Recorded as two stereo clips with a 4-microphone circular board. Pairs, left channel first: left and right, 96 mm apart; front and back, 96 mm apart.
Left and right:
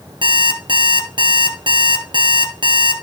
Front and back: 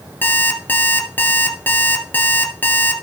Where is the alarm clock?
70° right, 1.7 m.